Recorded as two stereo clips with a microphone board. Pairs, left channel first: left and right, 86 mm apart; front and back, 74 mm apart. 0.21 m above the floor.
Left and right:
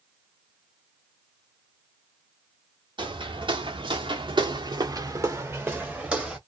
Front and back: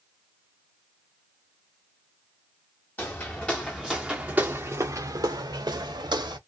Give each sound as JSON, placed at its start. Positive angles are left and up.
{"t": 3.0, "sound": "footsteps", "azimuth_deg": -65, "distance_m": 1.3}